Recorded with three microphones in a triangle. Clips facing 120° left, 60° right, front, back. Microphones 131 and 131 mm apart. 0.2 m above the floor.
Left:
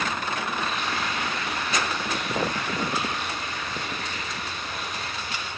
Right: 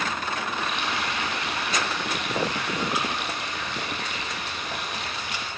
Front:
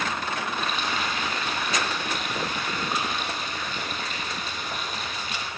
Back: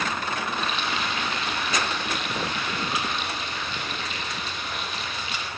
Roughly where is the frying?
Ahead right.